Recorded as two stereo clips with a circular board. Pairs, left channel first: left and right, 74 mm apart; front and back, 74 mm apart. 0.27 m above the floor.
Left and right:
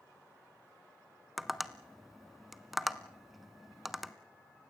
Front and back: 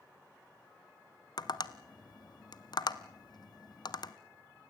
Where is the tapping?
Straight ahead, 1.1 m.